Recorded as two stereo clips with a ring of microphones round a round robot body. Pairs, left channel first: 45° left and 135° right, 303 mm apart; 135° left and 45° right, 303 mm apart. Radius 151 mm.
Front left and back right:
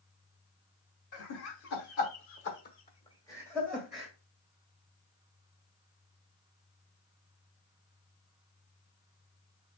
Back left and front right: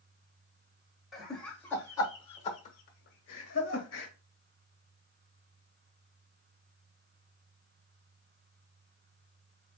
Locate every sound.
1.1 s laughter: 45° left, 1.5 m; by 4.1 s 155° left, 1.2 m